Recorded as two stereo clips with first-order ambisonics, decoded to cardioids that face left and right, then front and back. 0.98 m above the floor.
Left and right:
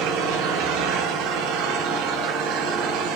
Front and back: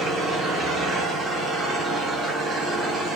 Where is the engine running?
105° right, 5 m.